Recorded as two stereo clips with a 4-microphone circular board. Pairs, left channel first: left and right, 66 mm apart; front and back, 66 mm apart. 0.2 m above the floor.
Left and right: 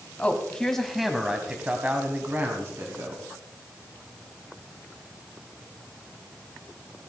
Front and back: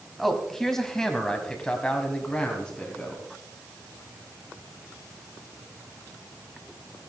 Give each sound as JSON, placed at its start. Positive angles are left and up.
{"t": 0.2, "sound": "a man speaking", "azimuth_deg": 80, "distance_m": 1.3}